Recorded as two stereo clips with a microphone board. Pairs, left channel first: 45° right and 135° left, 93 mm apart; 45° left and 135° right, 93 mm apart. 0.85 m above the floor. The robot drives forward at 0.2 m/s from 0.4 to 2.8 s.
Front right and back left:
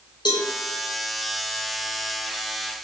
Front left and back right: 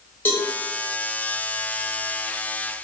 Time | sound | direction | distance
0.2 | a cowbell | 20° right | 0.6 m